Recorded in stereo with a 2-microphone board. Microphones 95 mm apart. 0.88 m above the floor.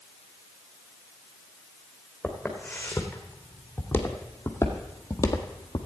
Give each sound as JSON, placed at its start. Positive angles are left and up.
{"t": 2.2, "sound": "footsteps", "side_deg": 10, "distance_m": 3.0}